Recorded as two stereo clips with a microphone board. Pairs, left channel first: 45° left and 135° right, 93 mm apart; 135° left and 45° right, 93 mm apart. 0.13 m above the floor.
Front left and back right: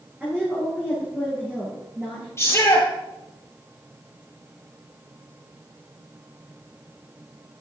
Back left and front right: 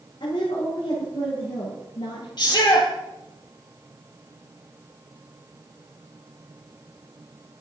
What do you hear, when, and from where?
0.2 s a woman speaking: 145° left, 6.5 m; by 2.3 s 150° left, 7.5 m
2.4 s a shout: 105° left, 3.5 m